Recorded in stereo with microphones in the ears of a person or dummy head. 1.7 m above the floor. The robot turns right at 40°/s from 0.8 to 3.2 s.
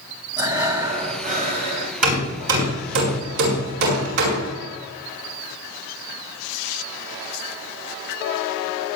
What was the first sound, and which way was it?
Breathing, 160° right.